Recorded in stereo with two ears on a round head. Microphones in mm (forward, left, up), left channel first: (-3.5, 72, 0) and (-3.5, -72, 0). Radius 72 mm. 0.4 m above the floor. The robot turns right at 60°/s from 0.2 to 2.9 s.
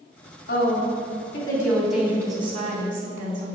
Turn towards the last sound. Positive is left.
turn(degrees=-120)